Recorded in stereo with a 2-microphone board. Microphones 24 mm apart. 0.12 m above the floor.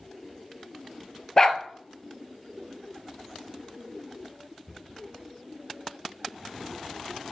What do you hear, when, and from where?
1.4 s a dog barking: 25° left (ahead or behind), 0.8 m